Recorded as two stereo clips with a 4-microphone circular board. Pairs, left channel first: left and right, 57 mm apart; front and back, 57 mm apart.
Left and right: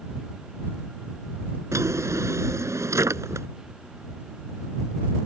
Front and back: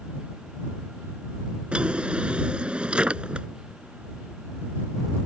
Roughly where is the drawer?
Right.